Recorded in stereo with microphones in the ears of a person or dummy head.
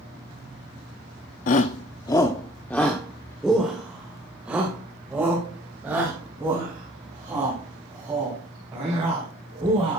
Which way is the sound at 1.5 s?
40° left (ahead or behind).